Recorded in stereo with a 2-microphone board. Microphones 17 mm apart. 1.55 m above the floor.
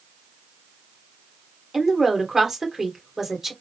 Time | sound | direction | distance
1.7 | a woman speaking | 30° right (ahead or behind) | 1.5 m